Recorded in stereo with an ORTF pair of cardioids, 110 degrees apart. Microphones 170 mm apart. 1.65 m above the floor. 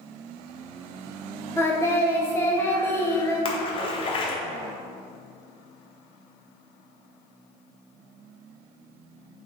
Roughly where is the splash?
Ahead left.